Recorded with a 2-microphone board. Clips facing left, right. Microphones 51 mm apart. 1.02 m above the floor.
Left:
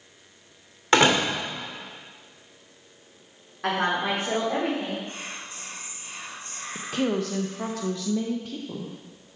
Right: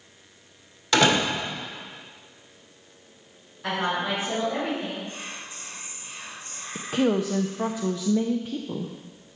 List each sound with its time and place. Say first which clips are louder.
0.9 s a door slam: left 1 dB; 35° left (ahead or behind), 2.5 m
3.6 s a woman speaking: left 2 dB; 75° left (ahead or behind), 3 m
5.0 s whispering: even; 50° left (ahead or behind), 3 m
6.8 s a woman speaking: right 3 dB; 15° right (ahead or behind), 0.5 m